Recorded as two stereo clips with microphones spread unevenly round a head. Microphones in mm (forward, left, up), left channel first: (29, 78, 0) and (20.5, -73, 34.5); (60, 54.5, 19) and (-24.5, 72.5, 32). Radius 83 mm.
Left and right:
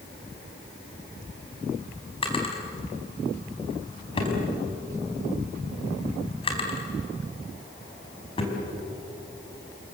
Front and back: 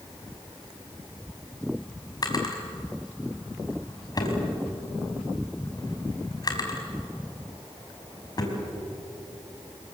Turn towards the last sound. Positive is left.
turn(degrees=30)